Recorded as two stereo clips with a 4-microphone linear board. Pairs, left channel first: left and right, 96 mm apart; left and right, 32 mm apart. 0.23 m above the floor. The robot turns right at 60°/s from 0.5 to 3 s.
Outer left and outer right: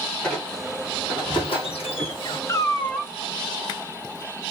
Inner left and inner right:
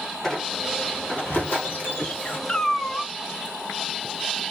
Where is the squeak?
10° left, 1.8 m; by 2.4 s 120° left, 1.8 m.